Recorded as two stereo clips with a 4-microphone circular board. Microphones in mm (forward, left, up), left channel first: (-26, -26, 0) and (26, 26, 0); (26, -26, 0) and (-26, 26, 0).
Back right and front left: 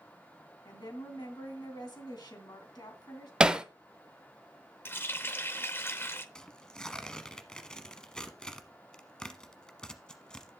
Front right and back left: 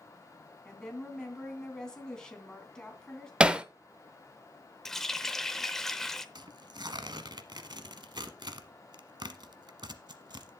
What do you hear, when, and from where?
0.7 s a woman speaking: 125° right, 2.5 m
3.4 s hammering: 95° left, 0.7 m
4.8 s a running tap: 125° right, 0.8 m
6.3 s tearing paper: 145° left, 0.9 m